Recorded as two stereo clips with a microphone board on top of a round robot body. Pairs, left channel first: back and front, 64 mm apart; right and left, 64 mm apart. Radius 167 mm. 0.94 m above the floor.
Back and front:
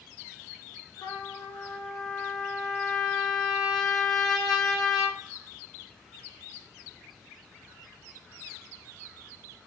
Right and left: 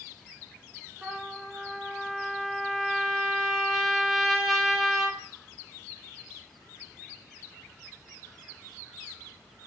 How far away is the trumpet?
About 0.5 m.